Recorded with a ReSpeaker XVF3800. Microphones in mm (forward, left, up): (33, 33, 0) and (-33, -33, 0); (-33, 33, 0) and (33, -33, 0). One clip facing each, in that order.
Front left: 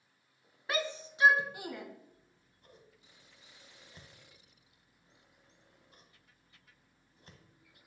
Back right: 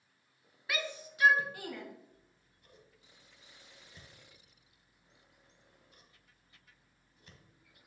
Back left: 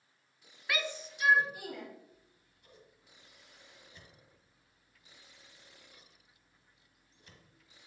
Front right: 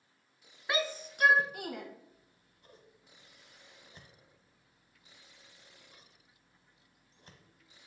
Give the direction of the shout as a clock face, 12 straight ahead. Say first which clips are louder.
Front left 4 dB, front right 3 dB; 12 o'clock.